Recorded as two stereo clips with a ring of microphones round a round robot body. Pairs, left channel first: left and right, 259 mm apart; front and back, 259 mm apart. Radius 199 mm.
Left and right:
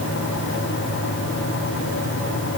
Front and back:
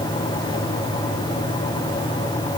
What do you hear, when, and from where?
Only background noise.